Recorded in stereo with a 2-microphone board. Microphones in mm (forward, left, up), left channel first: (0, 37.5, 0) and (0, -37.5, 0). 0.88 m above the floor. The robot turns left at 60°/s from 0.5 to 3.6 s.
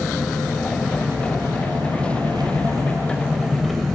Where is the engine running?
5° left, 3 m; by 4.0 s straight behind, 3 m.